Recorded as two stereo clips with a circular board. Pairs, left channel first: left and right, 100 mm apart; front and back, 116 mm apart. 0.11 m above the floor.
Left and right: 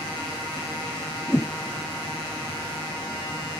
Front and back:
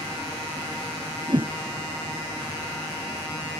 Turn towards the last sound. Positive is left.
turn(degrees=150)